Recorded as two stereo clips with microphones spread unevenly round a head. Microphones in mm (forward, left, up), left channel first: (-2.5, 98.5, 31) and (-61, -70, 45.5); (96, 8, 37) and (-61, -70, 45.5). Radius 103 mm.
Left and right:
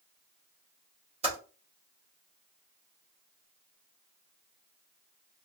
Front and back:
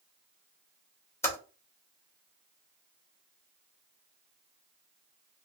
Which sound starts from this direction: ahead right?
Typing on a keyboard, at 1.2 s.